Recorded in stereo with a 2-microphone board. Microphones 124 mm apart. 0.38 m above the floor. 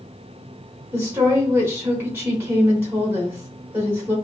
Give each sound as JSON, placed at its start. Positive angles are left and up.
{"t": 0.9, "sound": "a woman speaking", "side_deg": -20, "distance_m": 1.2}